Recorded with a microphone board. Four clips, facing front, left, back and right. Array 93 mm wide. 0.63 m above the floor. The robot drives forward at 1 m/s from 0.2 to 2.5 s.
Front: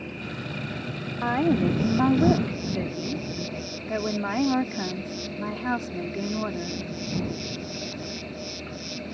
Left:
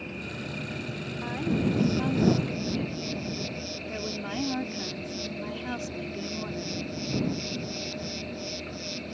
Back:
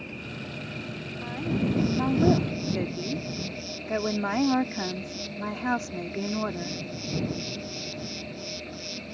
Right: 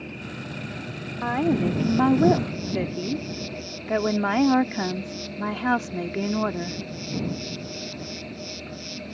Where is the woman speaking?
40° right; by 6.8 s 100° right.